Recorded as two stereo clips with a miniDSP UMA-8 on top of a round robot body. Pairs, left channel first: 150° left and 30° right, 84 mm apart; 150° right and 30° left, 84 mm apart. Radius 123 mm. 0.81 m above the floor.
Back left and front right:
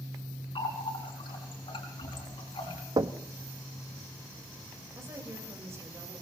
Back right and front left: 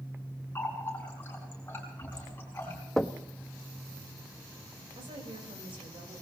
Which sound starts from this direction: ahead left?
A woman speaking, at 5.0 s.